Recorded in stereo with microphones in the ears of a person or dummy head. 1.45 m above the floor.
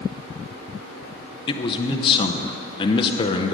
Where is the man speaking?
30° left (ahead or behind), 0.7 m.